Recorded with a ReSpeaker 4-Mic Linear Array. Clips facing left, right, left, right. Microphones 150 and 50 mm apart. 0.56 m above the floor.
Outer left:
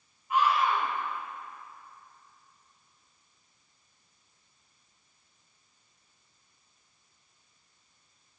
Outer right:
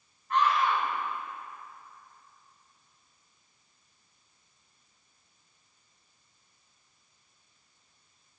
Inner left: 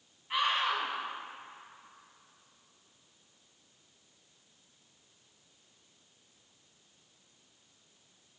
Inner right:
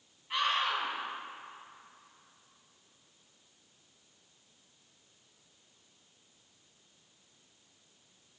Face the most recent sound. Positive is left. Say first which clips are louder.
# even, inner left 1 dB
turn(degrees=10)  # may be behind; listen again after turning